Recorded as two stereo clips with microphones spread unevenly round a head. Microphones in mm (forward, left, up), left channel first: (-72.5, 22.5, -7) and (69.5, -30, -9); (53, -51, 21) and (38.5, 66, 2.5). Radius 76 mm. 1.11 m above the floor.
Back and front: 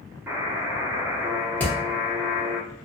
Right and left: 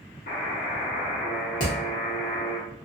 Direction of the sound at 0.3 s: 100° right.